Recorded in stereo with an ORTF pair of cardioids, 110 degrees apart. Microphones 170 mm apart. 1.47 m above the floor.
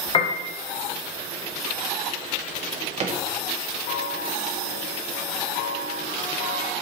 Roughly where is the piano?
Ahead left.